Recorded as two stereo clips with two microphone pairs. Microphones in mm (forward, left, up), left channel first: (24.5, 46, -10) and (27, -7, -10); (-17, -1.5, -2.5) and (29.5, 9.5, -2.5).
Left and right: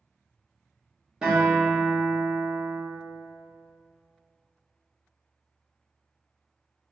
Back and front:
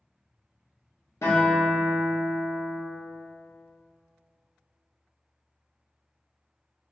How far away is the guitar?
About 0.9 m.